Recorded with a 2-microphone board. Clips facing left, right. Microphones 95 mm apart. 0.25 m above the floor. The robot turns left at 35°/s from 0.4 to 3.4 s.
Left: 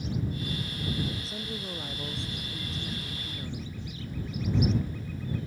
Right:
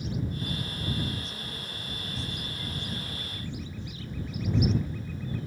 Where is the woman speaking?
145° left; by 3.8 s 70° left.